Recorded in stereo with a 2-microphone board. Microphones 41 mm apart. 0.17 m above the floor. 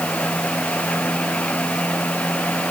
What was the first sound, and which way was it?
Only background noise.